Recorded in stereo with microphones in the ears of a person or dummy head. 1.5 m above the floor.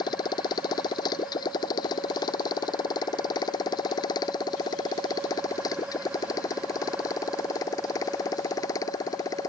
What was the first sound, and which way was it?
A motorcycle, 20° left (ahead or behind).